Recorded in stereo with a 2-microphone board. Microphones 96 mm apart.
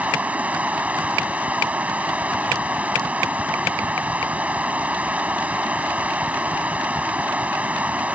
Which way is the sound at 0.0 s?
15° right (ahead or behind).